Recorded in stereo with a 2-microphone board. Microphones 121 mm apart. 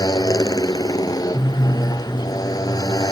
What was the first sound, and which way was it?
A motorcycle, 30° left (ahead or behind).